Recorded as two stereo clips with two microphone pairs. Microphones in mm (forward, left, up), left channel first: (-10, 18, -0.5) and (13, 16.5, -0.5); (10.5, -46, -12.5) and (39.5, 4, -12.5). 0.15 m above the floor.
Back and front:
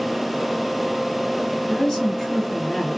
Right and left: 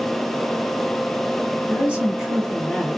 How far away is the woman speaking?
About 1.8 m.